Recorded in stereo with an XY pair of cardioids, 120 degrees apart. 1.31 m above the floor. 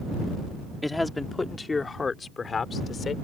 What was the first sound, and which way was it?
A man speaking, 10° left.